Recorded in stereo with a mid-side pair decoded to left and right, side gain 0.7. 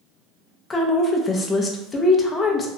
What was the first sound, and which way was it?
A woman speaking, 25° left.